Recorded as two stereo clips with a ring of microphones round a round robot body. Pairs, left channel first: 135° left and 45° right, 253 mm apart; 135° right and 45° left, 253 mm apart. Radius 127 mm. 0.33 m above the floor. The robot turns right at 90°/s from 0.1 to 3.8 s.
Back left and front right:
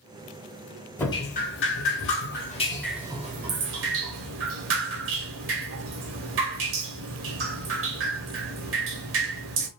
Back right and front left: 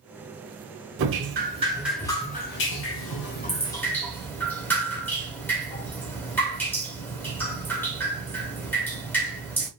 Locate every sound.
1.0 s dripping: 55° left, 0.8 m; by 9.7 s 55° right, 0.8 m